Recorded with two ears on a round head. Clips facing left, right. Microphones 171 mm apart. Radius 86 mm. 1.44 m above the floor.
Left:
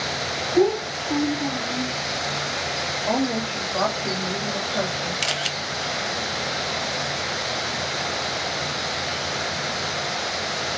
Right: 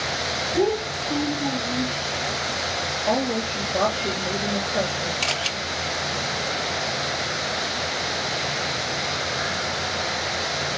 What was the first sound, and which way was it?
A child speaking, 20° right (ahead or behind).